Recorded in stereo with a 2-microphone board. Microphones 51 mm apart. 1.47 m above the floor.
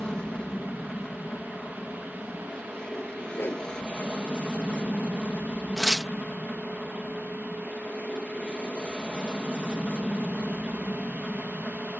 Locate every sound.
0.0 s an aircraft: 20° left (ahead or behind)
3.3 s a whoosh: 50° left (ahead or behind)
5.8 s tearing paper: 10° right (ahead or behind)